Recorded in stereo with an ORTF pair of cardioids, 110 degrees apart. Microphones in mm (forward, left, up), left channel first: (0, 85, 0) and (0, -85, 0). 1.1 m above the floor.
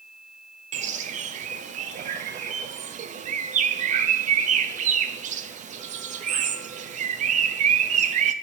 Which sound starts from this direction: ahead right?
A bird, at 0.7 s.